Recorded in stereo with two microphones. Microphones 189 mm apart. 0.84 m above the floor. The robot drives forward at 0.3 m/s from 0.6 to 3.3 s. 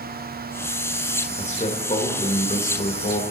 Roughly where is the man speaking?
Left.